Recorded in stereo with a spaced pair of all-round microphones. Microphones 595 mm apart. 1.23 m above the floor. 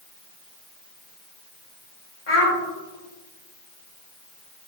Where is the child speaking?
45° left (ahead or behind), 1.0 m.